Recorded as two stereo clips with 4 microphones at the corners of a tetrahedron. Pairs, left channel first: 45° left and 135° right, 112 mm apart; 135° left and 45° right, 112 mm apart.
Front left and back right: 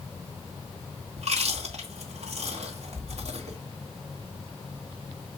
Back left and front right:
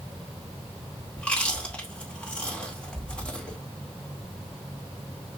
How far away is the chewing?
About 2 m.